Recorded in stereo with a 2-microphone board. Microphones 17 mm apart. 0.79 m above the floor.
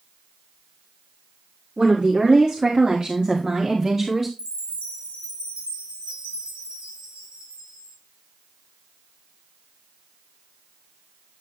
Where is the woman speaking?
65° right (ahead or behind), 2 m; by 4.3 s 25° right (ahead or behind), 1.8 m.